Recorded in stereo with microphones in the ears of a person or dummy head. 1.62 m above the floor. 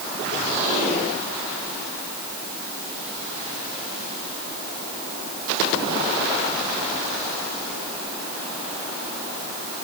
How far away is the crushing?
No crushing in this recording.